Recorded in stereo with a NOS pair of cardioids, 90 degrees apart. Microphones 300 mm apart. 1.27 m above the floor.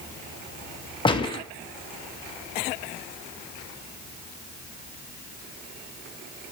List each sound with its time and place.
1.1 s a gunshot: 15° left, 1.2 m